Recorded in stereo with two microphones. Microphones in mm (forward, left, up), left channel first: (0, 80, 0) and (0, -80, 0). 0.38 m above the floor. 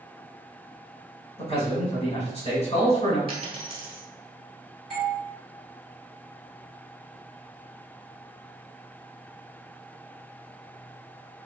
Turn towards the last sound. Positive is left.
turn(degrees=0)  # may be behind; listen again after turning